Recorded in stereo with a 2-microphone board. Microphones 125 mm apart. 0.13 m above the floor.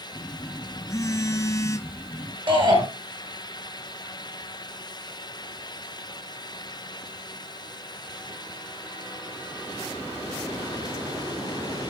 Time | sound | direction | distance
0.1 | a phone buzzing | 25° left (ahead or behind) | 0.6 m
2.5 | a shout | 45° right (ahead or behind) | 2.5 m